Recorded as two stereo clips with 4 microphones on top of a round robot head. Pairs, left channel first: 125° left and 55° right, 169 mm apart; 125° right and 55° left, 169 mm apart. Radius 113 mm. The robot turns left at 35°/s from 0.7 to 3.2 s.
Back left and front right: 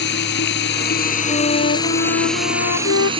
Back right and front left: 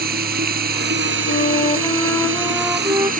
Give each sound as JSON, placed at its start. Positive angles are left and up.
{"t": 0.0, "sound": "running water", "azimuth_deg": 95}
{"t": 1.2, "sound": "a flute", "azimuth_deg": -170}